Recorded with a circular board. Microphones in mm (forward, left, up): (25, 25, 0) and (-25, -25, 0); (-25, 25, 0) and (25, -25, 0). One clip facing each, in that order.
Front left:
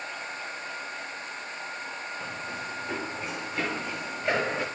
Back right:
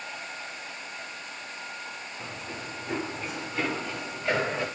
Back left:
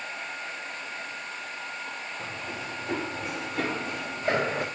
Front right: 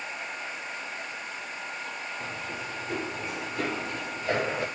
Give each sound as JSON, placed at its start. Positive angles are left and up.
{"t": 2.2, "sound": "running footsteps", "azimuth_deg": 130, "distance_m": 7.0}